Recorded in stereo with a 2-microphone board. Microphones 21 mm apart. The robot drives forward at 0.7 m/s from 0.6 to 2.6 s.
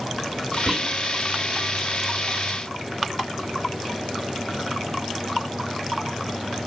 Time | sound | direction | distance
0.7 | whispering | 5° left (ahead or behind) | 5 m